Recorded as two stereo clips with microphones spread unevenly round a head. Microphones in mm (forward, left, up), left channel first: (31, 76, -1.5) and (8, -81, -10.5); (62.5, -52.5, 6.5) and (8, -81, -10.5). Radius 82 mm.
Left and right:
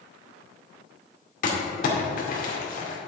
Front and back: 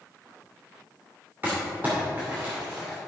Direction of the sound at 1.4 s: 125° left.